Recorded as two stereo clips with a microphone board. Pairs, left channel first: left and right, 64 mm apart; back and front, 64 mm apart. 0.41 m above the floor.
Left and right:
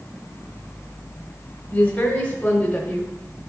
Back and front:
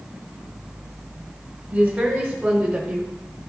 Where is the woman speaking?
55° left, 1.5 m.